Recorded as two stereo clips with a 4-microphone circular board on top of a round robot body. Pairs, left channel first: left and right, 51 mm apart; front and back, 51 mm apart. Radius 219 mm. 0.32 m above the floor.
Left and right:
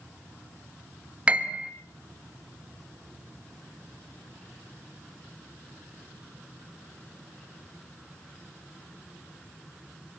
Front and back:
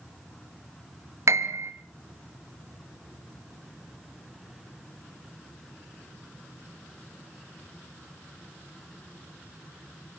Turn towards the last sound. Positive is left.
turn(degrees=-155)